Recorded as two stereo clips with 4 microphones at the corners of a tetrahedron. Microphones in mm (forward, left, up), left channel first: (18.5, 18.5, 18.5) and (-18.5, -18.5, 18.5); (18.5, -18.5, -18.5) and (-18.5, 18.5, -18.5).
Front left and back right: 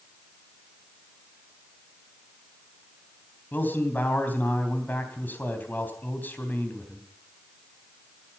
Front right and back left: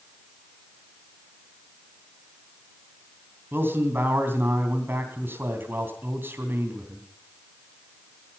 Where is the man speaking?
95° left, 3 m.